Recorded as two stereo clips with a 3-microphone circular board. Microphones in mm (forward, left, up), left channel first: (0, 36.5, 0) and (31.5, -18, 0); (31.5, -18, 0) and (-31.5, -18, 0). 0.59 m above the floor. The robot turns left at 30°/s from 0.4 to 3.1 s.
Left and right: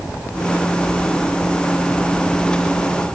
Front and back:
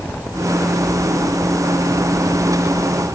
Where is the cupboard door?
I don't hear a cupboard door.